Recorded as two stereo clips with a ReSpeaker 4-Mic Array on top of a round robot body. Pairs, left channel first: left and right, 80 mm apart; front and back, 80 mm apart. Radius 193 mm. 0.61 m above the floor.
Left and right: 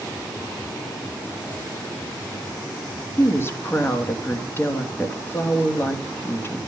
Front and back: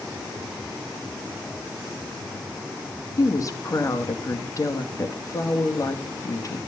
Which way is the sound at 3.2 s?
35° left.